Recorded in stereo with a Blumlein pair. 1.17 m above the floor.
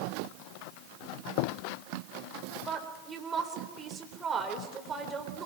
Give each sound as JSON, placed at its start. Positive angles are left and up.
{"t": 2.7, "sound": "a woman speaking", "azimuth_deg": -20, "distance_m": 3.5}